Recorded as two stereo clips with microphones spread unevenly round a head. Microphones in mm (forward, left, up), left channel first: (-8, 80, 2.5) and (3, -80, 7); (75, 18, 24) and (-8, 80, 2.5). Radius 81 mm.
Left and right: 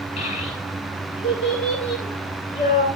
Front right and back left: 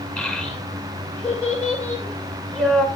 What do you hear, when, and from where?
0.2 s a child speaking: 40° left, 7.5 m